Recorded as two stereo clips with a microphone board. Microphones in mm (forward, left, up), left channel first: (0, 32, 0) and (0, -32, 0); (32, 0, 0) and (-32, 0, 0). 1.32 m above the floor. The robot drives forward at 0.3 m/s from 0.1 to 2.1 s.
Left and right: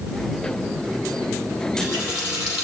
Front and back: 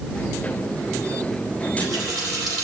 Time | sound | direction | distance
1.6 | a running tap | 165° right | 3 m